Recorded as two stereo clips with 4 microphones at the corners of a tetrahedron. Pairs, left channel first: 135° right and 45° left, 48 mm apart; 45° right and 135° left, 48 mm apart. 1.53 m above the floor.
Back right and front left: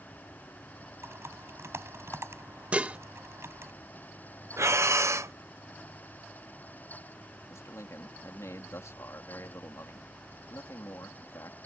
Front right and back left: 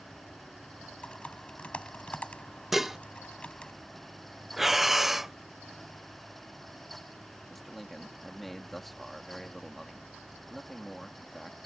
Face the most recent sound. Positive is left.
turn(degrees=-135)